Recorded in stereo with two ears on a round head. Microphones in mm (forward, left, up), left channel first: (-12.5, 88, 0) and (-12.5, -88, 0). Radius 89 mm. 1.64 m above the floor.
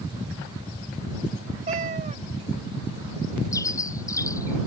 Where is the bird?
15° left (ahead or behind).